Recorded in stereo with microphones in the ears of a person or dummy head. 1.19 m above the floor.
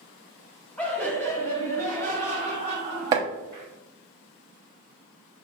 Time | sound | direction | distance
0.8 | laughter | 5° left (ahead or behind) | 0.9 m
3.1 | chopping | 20° right (ahead or behind) | 0.6 m